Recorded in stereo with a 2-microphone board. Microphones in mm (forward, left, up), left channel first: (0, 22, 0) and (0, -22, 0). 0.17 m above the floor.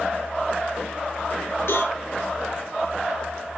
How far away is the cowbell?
About 7.5 m.